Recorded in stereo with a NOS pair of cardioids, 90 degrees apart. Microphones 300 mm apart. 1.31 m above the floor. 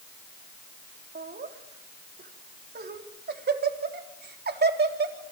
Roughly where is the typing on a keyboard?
I don't hear typing on a keyboard.